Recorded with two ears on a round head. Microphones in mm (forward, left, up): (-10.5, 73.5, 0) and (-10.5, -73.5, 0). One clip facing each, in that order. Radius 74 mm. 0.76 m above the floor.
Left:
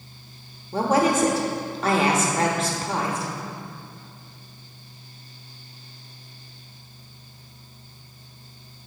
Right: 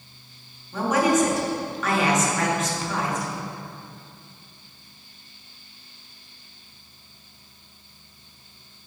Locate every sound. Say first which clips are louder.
0.7 s a woman speaking: even; 30° left (ahead or behind), 1.1 m